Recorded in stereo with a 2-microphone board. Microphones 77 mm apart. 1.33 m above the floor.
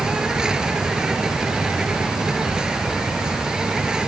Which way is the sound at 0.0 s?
10° right (ahead or behind).